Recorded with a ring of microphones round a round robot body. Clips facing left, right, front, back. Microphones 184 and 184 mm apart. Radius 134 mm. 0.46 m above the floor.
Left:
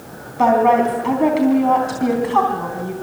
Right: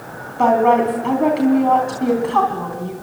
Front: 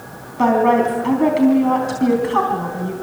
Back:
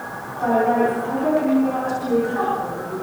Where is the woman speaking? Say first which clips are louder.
Even, front 3 dB; 5° left, 3.5 m.